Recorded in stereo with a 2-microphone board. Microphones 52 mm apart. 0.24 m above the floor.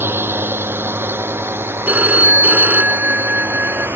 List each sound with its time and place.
0.0 s a drone: 45° right (ahead or behind)
1.9 s a phone ringing: 35° right (ahead or behind)